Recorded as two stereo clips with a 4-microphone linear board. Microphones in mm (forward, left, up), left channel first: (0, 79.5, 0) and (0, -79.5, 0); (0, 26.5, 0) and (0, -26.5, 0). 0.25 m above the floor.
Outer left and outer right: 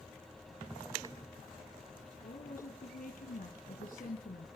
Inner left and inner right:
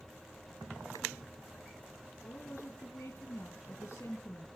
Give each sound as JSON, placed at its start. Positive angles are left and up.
{"t": 2.2, "sound": "a woman speaking", "side_deg": 65, "distance_m": 2.5}